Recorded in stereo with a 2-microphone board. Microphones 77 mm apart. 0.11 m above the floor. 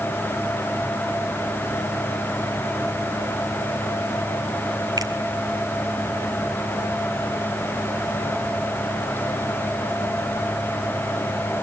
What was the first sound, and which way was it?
A finger snap, 60° right (ahead or behind).